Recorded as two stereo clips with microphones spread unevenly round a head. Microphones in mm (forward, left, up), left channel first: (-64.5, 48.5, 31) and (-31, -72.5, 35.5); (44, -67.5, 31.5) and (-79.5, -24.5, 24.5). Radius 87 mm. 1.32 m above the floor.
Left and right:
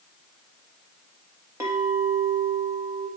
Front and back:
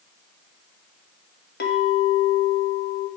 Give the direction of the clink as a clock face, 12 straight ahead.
12 o'clock.